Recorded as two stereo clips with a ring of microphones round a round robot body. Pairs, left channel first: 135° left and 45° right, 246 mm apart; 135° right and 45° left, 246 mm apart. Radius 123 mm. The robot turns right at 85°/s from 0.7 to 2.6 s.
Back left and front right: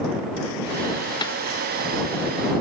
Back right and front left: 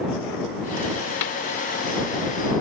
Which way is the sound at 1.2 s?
150° right.